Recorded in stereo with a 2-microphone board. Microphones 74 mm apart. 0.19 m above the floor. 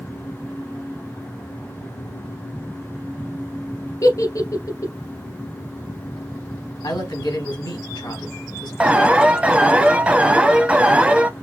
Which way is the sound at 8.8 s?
15° right (ahead or behind).